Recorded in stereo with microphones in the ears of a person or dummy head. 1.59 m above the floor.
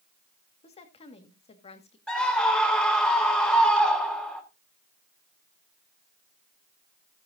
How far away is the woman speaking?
About 1.8 m.